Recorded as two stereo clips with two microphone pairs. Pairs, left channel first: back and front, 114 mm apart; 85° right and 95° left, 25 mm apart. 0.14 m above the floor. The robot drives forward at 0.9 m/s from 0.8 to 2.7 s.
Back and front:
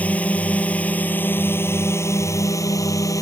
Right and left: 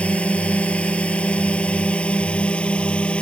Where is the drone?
100° right; by 3.2 s 120° right.